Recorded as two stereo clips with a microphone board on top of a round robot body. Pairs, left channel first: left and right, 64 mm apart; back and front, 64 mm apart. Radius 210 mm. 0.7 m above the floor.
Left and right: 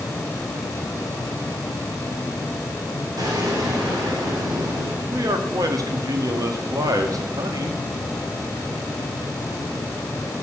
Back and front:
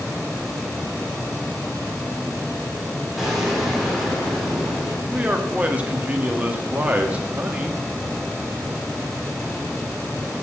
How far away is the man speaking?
About 1.6 m.